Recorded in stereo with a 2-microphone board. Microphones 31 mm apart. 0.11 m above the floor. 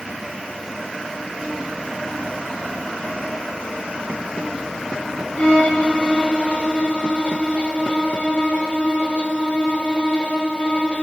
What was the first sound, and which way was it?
A violin, 40° left (ahead or behind).